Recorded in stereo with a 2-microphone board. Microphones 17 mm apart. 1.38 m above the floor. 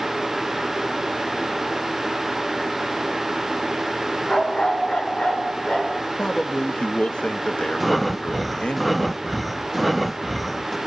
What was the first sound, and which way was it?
A dog barking, 70° left (ahead or behind).